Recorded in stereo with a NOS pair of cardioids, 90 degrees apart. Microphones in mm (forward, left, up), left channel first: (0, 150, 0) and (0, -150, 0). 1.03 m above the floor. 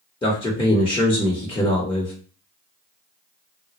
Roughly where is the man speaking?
Ahead.